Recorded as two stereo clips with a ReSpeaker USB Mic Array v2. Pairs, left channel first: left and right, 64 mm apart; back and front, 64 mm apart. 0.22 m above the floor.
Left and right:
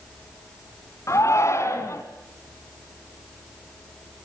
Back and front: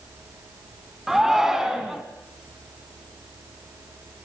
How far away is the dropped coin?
No dropped coin in this recording.